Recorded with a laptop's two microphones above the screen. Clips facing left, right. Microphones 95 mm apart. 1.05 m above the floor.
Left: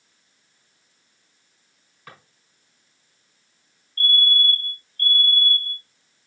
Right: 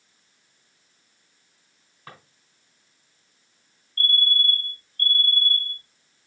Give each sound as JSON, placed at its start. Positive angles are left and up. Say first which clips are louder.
{"t": 2.1, "sound": "a drawer", "louder": "right 1 dB", "side_deg": -25, "distance_m": 4.5}
{"t": 4.0, "sound": "a fire alarm", "louder": "left 3 dB", "side_deg": -40, "distance_m": 4.0}